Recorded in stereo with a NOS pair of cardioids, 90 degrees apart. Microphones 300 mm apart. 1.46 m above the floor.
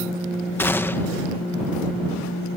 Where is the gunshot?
10° left.